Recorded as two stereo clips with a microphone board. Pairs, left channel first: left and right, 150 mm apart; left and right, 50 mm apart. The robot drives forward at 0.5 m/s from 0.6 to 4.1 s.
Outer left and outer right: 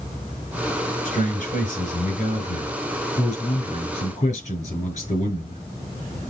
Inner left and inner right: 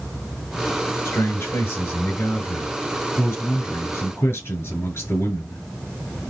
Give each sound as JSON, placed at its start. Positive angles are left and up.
{"t": 1.1, "sound": "a man speaking", "side_deg": 60, "distance_m": 6.0}